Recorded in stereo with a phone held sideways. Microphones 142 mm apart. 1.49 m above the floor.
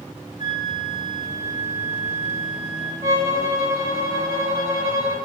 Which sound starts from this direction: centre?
A violin, at 3.0 s.